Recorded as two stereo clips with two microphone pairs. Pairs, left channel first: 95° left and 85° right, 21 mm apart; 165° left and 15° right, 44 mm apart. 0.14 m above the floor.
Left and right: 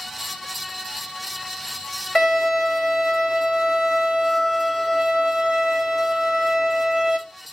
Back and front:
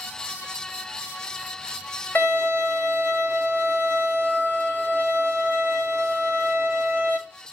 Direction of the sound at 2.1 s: 135° left.